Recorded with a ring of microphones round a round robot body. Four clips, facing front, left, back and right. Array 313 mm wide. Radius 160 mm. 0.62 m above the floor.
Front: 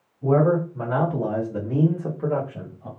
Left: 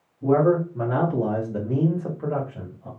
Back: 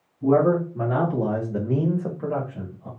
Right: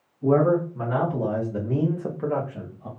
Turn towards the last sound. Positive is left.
turn(degrees=-55)